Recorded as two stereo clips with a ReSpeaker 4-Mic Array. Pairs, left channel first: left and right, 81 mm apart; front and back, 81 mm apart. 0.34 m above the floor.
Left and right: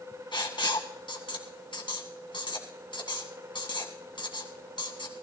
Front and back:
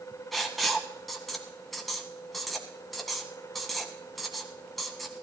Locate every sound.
0.3 s writing: 90° left, 1.8 m